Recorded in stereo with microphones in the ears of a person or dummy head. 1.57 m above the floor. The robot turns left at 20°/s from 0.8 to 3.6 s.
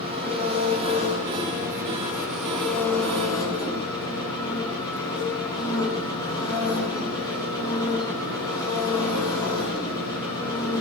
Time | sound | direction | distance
0.0 | an engine running | 140° right | 9 m